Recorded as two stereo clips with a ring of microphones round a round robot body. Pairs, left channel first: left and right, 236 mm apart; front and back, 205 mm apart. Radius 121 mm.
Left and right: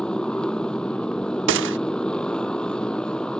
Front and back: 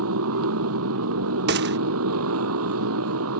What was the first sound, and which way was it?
A motorcycle, 175° left.